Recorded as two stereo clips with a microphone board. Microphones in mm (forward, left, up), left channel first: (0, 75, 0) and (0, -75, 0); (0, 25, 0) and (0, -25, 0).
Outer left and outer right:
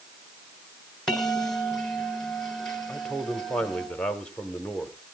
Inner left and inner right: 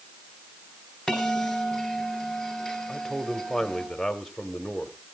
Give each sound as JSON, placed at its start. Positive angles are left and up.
{"t": 1.1, "sound": "a bell", "side_deg": 5, "distance_m": 2.5}
{"t": 2.9, "sound": "a man speaking", "side_deg": 5, "distance_m": 1.2}